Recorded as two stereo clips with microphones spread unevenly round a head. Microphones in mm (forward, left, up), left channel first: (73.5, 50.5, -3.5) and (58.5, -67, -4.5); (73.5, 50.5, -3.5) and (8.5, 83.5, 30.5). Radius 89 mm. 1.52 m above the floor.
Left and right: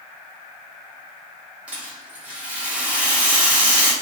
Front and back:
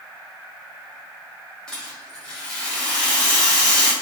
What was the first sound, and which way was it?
A rattle, 165° right.